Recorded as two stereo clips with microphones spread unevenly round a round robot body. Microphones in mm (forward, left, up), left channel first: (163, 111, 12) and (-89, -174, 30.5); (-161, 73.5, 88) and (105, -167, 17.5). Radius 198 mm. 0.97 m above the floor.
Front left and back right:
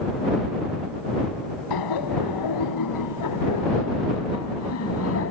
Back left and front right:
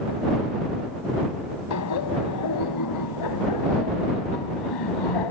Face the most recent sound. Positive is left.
turn(degrees=110)